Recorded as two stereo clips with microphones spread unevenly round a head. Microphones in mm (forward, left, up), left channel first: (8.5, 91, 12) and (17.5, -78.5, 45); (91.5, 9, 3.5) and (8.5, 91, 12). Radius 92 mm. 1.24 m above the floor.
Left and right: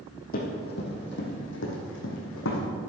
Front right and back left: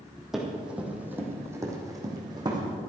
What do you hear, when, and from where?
0.3 s running footsteps: 50° left, 3.5 m; by 2.6 s 85° left, 4 m